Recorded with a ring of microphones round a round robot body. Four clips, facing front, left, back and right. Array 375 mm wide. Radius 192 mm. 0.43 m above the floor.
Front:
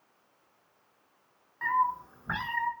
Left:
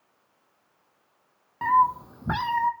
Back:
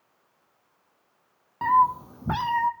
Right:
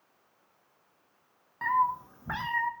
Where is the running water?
I don't hear running water.